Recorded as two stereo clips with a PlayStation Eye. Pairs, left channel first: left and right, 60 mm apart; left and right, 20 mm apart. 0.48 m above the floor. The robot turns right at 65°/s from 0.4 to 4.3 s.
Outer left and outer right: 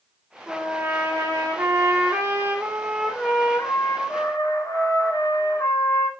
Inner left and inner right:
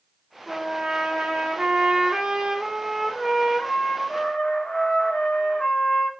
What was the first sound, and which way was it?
A trumpet, 170° right.